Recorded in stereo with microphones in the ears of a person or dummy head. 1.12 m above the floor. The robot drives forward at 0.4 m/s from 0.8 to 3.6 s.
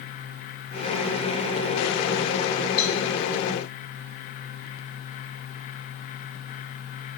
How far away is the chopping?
No chopping in this recording.